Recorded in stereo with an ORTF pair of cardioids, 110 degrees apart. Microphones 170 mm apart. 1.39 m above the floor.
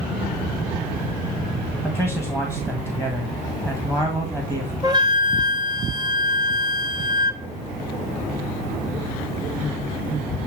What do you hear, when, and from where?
1.8 s a man speaking: 15° right, 2 m
4.8 s a flute: 20° right, 1.2 m